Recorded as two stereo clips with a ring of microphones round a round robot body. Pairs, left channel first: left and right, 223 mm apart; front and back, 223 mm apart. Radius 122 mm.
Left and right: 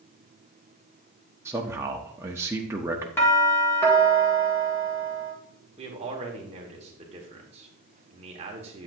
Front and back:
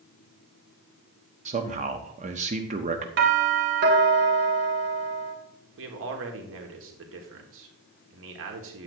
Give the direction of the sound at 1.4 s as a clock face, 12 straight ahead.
5 o'clock.